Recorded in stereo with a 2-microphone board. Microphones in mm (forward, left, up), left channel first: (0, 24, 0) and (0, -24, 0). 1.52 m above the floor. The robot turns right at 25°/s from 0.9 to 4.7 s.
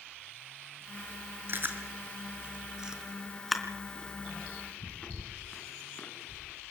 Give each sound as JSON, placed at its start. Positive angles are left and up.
{"t": 1.5, "sound": "chewing", "side_deg": -45, "distance_m": 3.5}